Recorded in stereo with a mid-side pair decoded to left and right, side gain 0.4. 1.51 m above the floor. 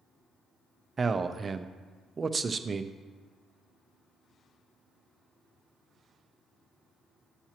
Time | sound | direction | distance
1.0 | a man speaking | 40° right | 0.5 m